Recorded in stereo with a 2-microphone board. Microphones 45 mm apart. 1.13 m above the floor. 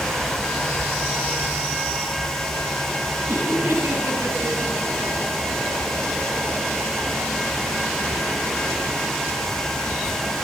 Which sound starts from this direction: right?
Laughter, at 3.3 s.